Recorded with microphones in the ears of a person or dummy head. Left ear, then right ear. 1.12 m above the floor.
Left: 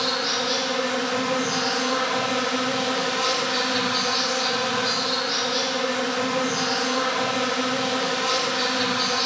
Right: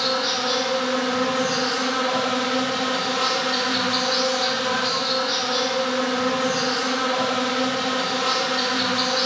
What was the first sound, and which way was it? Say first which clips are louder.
An insect: right 1 dB; 35° right (ahead or behind).